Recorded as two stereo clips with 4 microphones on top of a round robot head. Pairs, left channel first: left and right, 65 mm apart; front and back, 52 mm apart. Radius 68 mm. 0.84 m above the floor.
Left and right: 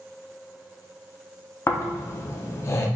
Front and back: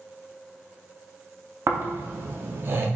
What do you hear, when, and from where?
1.7 s snoring: 135° left, 0.5 m